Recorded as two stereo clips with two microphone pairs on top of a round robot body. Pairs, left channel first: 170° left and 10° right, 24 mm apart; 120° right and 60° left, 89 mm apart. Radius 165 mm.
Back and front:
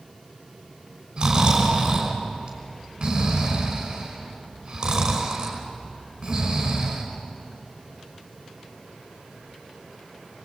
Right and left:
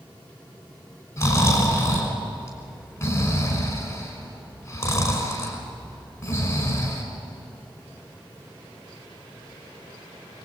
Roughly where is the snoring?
Ahead right.